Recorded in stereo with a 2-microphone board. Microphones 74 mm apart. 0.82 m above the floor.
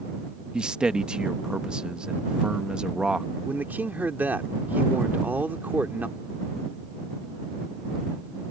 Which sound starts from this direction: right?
A man speaking, at 3.5 s.